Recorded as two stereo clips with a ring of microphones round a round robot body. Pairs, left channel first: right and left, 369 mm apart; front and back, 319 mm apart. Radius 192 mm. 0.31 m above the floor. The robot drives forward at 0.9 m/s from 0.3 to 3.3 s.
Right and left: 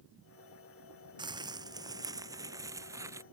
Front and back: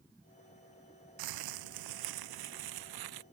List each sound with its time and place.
1.2 s crumpling: 170° left